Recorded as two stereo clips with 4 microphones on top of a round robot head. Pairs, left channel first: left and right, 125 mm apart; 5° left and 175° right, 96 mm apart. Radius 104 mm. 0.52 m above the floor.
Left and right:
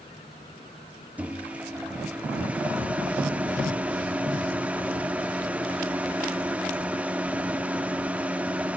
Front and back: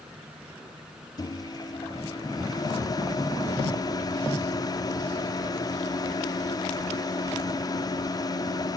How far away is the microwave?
About 0.9 m.